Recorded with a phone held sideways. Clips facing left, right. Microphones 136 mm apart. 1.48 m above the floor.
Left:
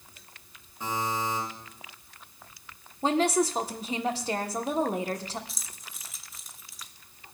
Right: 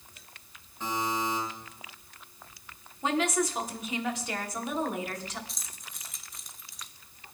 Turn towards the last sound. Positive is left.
turn(degrees=0)  # may be behind; listen again after turning